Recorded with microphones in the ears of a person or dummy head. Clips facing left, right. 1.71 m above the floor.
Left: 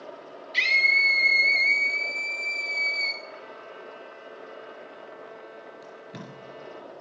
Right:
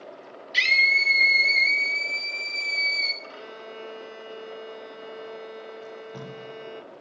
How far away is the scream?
About 4 m.